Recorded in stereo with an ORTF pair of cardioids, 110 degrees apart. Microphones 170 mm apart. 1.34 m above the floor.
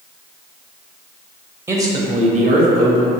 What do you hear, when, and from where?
1.7 s a man speaking: 10° right, 0.6 m; by 3.1 s 70° right, 1.0 m